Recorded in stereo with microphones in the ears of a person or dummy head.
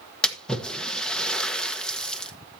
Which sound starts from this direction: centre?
A splash, at 0.2 s.